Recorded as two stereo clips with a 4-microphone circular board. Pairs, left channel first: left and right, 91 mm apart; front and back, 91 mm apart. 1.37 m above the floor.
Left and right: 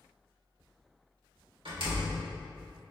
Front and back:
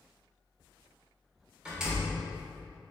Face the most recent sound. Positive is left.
turn(degrees=-100)